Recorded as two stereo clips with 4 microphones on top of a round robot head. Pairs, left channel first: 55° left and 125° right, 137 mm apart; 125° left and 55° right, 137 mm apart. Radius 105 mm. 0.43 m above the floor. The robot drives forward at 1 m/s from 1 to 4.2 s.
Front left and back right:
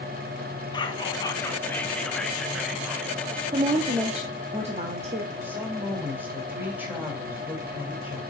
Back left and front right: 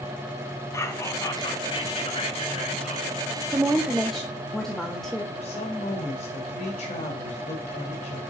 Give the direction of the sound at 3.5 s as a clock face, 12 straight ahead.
4 o'clock.